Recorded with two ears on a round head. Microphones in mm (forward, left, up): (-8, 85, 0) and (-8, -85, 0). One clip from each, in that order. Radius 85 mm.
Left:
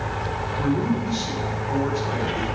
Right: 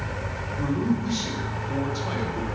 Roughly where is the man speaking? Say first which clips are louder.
Left 1 dB; right.